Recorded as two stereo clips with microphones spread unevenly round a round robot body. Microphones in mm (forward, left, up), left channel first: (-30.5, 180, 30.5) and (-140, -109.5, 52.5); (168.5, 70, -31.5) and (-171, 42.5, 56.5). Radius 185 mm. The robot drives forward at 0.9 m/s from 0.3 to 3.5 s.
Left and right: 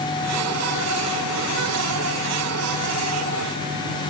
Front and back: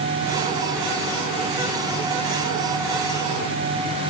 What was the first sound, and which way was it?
Only background noise.